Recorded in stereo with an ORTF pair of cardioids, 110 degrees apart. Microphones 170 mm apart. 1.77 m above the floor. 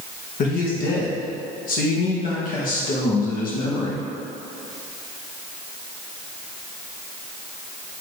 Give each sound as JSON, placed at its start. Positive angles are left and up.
{"t": 0.4, "sound": "a man speaking", "azimuth_deg": 65, "distance_m": 1.9}